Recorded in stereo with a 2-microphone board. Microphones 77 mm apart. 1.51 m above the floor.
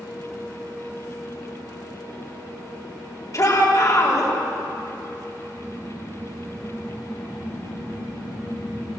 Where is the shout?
45° left (ahead or behind), 4 m.